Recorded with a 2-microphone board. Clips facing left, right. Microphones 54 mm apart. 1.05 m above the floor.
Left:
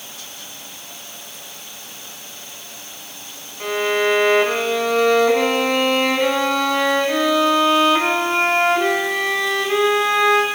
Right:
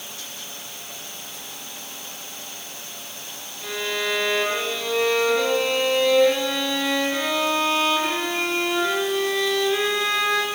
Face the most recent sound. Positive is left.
turn(degrees=75)  # may be behind; listen again after turning